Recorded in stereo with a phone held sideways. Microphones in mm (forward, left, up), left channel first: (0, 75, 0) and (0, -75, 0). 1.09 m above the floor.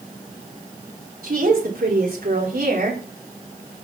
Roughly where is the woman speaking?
Right.